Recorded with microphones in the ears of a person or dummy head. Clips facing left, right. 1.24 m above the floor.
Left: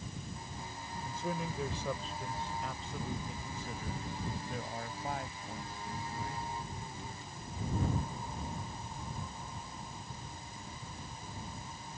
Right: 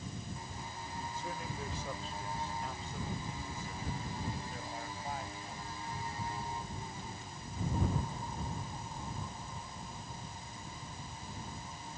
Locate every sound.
1.1 s a man speaking: 60° left (ahead or behind); by 6.5 s 50° left (ahead or behind)